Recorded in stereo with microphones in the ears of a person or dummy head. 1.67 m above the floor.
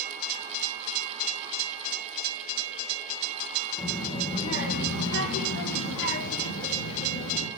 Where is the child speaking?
20° left (ahead or behind), 1.2 m; by 7.5 s 55° left (ahead or behind), 2.0 m.